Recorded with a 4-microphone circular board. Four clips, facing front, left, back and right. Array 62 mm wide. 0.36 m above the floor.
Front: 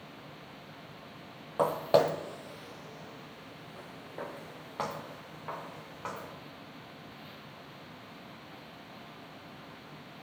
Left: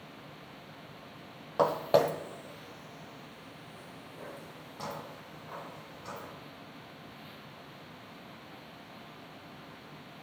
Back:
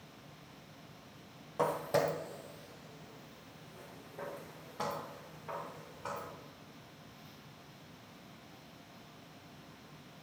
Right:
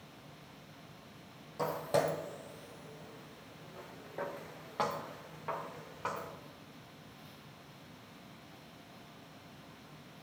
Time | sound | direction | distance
1.6 | footsteps | 65° left | 0.8 m